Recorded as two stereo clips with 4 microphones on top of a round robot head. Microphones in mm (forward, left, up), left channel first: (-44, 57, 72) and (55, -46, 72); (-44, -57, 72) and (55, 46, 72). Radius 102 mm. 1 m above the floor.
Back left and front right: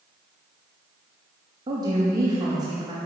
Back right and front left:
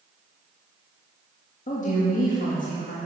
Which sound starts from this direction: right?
A woman speaking, at 1.7 s.